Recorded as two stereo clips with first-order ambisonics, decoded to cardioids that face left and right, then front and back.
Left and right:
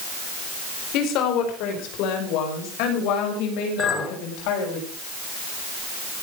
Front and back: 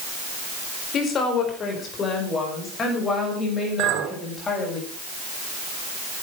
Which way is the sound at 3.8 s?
170° left.